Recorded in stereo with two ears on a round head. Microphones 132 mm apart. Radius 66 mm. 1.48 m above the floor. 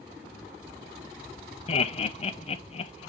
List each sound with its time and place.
1.7 s laughter: 40° left (ahead or behind), 0.8 m